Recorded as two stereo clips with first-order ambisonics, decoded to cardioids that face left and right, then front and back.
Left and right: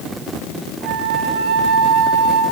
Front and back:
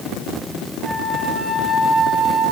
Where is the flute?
95° right, 2 m.